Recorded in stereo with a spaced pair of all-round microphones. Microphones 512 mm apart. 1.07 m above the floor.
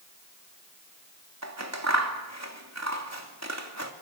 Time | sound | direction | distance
1.4 | scissors | 30° right (ahead or behind) | 2.5 m